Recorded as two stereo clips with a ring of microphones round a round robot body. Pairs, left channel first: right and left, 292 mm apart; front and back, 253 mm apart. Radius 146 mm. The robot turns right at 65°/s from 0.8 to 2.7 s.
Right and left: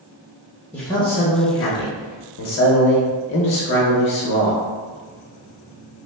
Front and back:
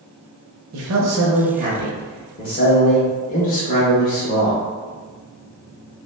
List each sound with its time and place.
0.7 s a man speaking: 175° right, 0.5 m; by 4.6 s 50° right, 0.5 m